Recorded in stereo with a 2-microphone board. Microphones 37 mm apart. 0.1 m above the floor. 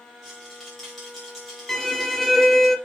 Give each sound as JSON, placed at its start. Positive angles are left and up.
{"t": 0.2, "sound": "a rattle", "side_deg": 10, "distance_m": 4.0}
{"t": 1.7, "sound": "a violin", "side_deg": 5, "distance_m": 1.3}